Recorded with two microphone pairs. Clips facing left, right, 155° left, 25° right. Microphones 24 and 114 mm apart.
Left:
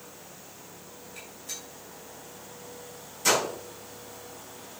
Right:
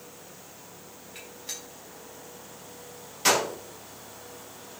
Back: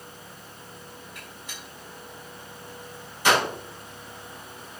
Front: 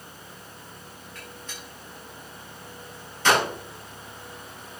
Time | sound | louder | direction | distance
1.1 | a gunshot | right 1 dB, front 1 dB | 125° right | 5.5 m